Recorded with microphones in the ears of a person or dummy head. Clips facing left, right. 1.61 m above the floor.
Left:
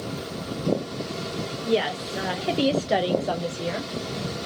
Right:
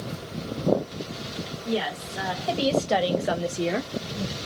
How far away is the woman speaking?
About 1.0 m.